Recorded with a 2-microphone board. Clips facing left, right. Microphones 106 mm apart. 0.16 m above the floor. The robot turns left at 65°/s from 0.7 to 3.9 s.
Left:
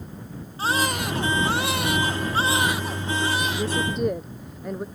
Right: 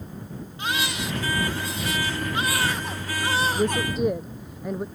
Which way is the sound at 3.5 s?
25° right (ahead or behind).